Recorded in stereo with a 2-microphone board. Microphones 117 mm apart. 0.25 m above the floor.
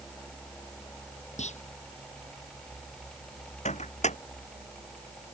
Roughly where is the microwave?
Left.